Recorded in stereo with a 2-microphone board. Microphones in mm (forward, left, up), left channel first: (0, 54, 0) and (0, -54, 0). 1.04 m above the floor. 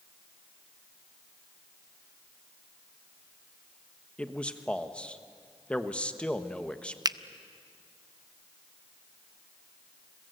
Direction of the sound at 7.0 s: 35° right (ahead or behind).